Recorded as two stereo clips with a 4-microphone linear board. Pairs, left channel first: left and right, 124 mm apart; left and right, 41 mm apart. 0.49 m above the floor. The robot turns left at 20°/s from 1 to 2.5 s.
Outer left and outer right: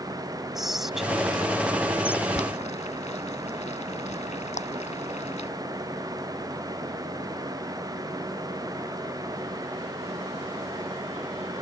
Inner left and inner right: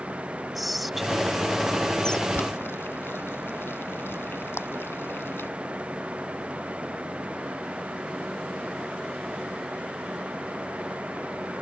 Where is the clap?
80° left.